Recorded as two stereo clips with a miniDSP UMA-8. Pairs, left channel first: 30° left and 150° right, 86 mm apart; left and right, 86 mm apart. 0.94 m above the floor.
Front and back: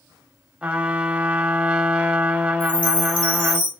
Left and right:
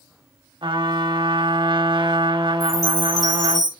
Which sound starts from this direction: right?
A trumpet, at 0.6 s.